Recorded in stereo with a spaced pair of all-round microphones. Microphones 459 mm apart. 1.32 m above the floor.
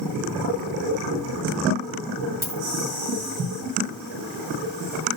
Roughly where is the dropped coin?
Left.